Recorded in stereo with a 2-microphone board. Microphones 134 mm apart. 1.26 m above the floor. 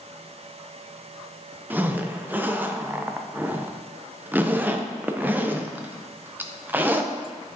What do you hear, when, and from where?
1.7 s a zipper: 15° right (ahead or behind), 0.5 m